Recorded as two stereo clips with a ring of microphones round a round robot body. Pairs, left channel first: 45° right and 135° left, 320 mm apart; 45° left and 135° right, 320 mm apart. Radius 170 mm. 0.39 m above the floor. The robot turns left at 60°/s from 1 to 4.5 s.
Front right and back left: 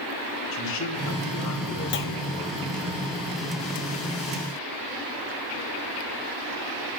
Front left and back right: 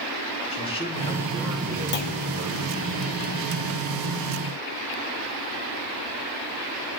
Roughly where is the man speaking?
Ahead right.